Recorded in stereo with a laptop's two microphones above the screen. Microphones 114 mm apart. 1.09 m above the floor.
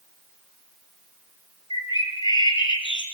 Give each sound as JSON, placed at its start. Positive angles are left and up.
{"t": 1.7, "sound": "a bird", "side_deg": 45, "distance_m": 4.0}